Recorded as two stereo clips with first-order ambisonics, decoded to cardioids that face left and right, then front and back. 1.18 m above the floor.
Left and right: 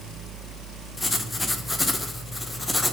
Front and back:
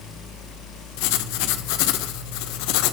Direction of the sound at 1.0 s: 10° left.